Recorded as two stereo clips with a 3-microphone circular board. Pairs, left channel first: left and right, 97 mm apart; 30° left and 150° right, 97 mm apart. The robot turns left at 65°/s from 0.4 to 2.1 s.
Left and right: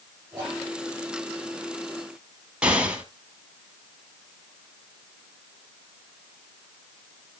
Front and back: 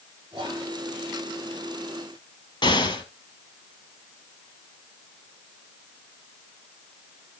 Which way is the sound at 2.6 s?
10° right.